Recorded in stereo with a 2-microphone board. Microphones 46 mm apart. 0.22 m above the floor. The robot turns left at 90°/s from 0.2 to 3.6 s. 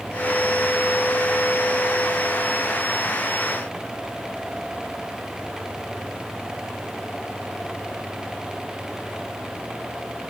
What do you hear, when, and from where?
Only background noise.